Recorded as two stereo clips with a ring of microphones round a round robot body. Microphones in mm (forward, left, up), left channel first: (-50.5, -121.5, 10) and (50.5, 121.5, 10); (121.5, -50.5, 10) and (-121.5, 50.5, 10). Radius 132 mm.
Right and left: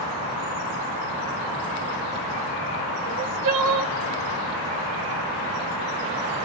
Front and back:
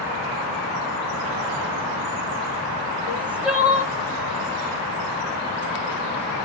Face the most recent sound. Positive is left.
turn(degrees=75)